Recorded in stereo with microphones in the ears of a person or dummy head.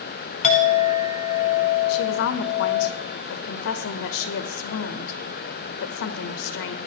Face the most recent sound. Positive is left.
turn(degrees=70)  # may be behind; listen again after turning